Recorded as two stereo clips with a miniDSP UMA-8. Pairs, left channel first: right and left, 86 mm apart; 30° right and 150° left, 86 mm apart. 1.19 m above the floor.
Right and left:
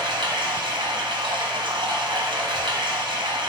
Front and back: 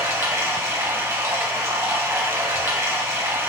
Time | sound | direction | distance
0.0 | running water | 100° left | 0.8 m